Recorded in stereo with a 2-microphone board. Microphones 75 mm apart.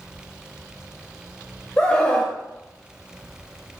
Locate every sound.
1.8 s a scream: 15° left (ahead or behind), 1.0 m